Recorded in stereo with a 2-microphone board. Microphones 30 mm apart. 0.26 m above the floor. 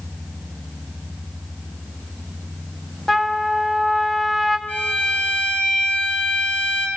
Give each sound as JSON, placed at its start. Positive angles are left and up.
{"t": 3.1, "sound": "a trumpet", "side_deg": 5, "distance_m": 1.4}
{"t": 4.7, "sound": "a violin", "side_deg": 75, "distance_m": 6.0}